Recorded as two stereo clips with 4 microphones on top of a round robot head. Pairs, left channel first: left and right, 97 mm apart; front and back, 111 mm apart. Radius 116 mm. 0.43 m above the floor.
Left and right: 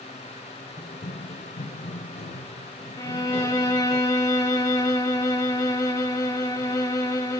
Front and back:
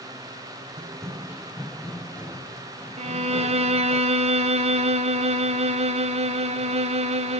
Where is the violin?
150° left, 1.1 m.